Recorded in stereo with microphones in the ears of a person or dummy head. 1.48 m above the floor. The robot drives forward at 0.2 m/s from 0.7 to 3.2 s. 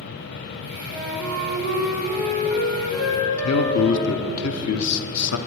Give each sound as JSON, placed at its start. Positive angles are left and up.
{"t": 0.9, "sound": "a flute", "side_deg": 5, "distance_m": 2.5}
{"t": 3.3, "sound": "a man speaking", "side_deg": 85, "distance_m": 0.7}